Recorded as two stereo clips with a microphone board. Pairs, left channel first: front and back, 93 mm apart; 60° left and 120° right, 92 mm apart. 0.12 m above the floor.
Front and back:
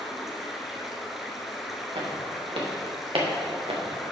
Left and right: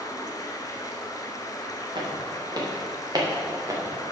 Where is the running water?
95° left, 1.1 m.